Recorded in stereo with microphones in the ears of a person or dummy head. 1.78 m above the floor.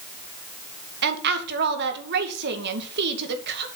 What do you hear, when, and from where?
1.0 s a woman speaking: 60° right (ahead or behind), 2.5 m